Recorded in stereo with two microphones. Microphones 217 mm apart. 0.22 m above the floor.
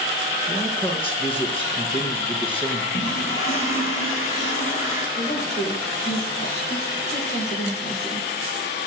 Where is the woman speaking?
50° left (ahead or behind), 5 m.